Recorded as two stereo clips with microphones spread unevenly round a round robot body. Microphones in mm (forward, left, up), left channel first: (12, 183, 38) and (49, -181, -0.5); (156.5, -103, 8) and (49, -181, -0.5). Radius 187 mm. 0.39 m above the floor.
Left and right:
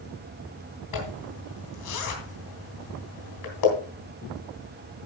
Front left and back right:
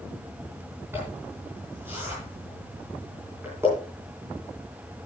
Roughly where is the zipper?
Behind left.